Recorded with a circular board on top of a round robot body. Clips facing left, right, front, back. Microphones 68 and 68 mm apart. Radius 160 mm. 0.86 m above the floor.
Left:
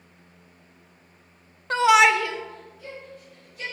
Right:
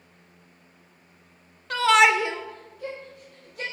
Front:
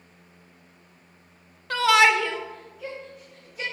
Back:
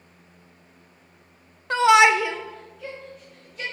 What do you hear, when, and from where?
1.7 s a shout: 125° left, 0.9 m; by 3.6 s 80° right, 2.5 m